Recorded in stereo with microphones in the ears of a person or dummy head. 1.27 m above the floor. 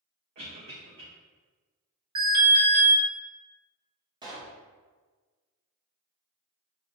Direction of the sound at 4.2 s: 20° right (ahead or behind).